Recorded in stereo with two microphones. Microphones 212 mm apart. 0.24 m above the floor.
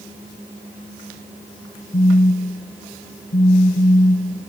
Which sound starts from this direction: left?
A phone buzzing, at 1.9 s.